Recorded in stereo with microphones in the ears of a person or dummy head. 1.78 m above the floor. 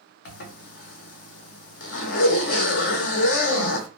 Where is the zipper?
70° left (ahead or behind), 0.7 m.